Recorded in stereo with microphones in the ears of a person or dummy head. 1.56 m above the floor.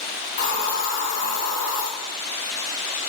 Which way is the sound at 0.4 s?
45° left (ahead or behind).